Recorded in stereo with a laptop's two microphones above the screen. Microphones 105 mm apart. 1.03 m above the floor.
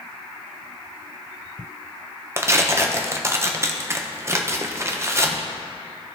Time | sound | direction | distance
2.4 | tearing paper | 25° right (ahead or behind) | 0.7 m